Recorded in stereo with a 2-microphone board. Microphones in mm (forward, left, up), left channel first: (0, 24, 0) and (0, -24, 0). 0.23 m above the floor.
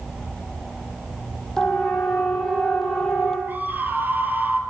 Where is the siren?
10° left (ahead or behind), 7 m.